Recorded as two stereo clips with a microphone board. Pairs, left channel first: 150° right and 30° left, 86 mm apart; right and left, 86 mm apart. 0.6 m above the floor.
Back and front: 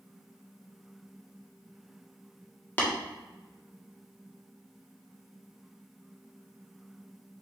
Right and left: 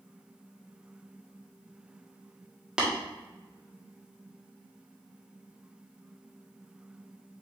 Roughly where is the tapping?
Behind.